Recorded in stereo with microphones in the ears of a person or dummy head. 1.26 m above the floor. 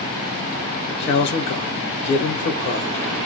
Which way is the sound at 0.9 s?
65° left (ahead or behind).